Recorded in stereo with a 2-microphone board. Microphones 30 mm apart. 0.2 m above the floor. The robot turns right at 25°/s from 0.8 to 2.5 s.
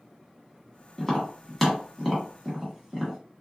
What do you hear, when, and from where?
1.0 s tapping: 10° left (ahead or behind), 1.3 m; by 3.2 s 15° right (ahead or behind), 1.3 m